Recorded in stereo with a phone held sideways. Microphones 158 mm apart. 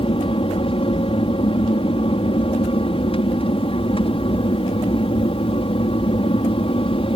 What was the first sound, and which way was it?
An aircraft, 35° left (ahead or behind).